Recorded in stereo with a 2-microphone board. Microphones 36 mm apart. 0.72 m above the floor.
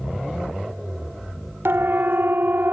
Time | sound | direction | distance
1.6 | a siren | 75° right (ahead or behind) | 2 m